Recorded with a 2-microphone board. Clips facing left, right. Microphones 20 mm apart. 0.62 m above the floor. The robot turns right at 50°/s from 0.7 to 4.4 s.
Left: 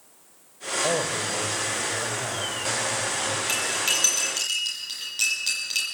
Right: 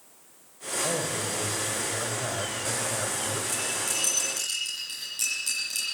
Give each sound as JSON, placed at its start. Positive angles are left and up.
{"t": 0.8, "sound": "a man speaking", "azimuth_deg": 115, "distance_m": 3.0}
{"t": 3.5, "sound": "cutlery clinking", "side_deg": 85, "distance_m": 8.5}